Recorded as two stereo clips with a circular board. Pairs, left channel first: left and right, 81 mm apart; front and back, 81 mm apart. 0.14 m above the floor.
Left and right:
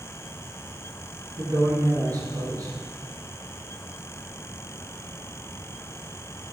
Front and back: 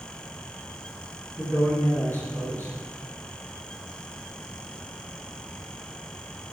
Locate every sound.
1.4 s a man speaking: 65° right, 3 m